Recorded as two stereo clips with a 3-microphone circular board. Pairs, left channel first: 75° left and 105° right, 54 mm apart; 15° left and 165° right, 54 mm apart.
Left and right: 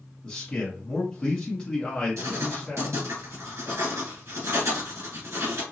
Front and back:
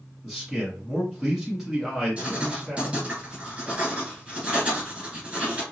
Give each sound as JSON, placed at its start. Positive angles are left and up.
{"t": 0.2, "sound": "a man speaking", "azimuth_deg": 120, "distance_m": 1.0}
{"t": 2.2, "sound": "writing", "azimuth_deg": -100, "distance_m": 1.9}